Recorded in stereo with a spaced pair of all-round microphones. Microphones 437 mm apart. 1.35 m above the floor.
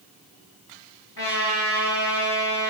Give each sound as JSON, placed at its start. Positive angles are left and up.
{"t": 1.2, "sound": "a trumpet", "side_deg": 55, "distance_m": 4.0}